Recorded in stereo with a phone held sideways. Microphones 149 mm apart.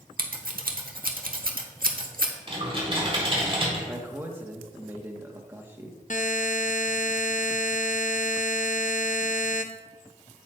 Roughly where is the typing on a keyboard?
Right.